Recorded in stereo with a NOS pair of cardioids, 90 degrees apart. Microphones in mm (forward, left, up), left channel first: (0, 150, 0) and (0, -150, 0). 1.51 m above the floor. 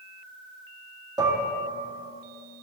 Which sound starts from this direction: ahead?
Dishes clattering, at 1.2 s.